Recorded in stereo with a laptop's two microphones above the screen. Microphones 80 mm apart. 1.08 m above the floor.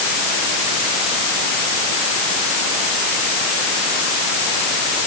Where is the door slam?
No door slam in this recording.